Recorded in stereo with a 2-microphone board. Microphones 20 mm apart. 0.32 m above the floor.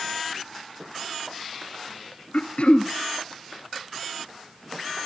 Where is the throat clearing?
60° left (ahead or behind), 2.0 m.